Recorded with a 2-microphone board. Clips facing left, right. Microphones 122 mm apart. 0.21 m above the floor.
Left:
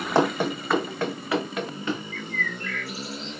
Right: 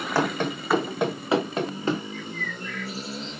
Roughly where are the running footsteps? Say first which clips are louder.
Left 3 dB; left.